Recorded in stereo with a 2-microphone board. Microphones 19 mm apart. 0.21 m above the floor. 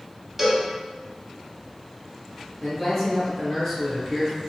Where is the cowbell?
20° right (ahead or behind), 0.9 m.